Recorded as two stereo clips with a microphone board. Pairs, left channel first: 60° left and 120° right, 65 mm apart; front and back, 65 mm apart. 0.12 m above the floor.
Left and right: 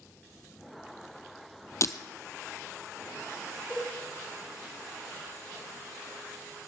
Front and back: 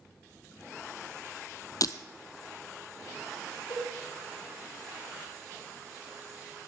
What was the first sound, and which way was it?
Breaking glass, 25° left.